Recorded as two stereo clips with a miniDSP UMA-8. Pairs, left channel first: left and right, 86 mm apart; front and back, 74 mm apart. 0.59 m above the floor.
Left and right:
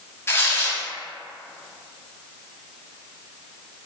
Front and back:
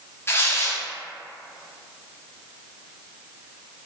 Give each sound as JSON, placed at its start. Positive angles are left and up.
{"t": 0.3, "sound": "tearing paper", "azimuth_deg": 40, "distance_m": 0.6}